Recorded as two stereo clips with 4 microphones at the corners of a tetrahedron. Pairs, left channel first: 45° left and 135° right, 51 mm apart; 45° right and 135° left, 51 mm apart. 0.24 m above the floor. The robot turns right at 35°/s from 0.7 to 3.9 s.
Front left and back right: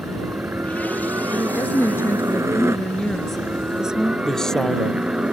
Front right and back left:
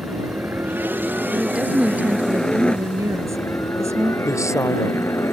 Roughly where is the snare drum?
I don't hear a snare drum.